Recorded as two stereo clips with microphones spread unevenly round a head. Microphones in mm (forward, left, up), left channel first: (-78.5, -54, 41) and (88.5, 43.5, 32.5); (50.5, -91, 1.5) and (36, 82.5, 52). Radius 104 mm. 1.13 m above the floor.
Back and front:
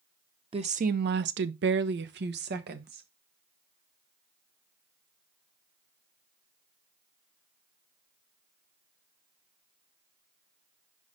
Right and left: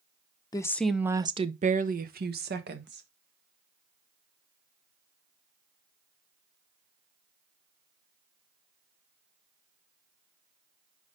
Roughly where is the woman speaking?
Ahead right.